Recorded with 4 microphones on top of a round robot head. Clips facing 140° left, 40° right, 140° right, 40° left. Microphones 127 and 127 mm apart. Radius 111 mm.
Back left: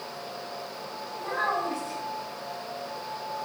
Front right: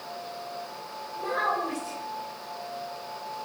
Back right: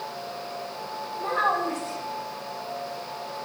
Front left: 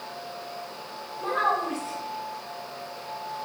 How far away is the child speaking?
About 2.5 m.